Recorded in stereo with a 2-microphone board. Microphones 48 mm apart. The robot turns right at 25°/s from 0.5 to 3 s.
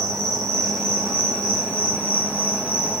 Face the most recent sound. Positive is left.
turn(degrees=-25)